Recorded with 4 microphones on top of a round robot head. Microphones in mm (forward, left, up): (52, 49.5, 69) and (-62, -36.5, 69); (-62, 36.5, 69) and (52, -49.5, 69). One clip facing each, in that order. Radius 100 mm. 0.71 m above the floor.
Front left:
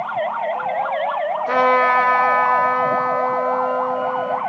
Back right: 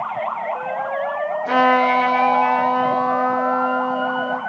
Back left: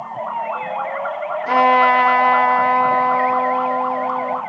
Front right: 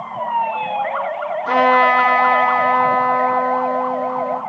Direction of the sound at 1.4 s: 140° right.